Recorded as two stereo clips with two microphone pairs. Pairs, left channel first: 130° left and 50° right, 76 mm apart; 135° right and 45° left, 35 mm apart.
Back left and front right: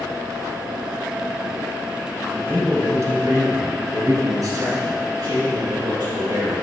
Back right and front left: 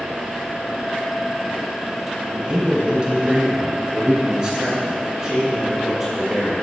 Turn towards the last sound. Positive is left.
turn(degrees=-30)